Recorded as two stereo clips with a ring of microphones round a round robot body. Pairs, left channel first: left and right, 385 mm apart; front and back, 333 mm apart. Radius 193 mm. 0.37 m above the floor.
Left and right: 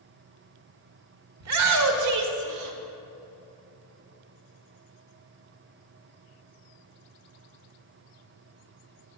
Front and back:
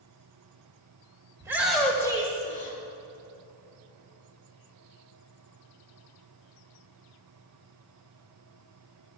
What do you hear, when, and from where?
1.4 s a shout: 105° right, 1.3 m; by 2.8 s 60° right, 1.6 m